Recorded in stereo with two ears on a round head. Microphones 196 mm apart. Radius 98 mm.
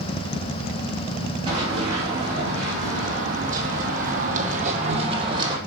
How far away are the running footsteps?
About 3.5 m.